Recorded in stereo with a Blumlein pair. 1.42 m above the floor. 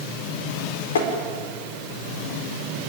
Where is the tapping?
60° left, 4 m.